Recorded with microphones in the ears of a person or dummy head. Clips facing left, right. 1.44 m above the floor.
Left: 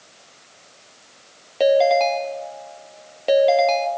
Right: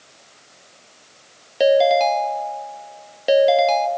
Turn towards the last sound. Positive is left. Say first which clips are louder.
# right 1 dB
turn(degrees=-15)  # may be behind; listen again after turning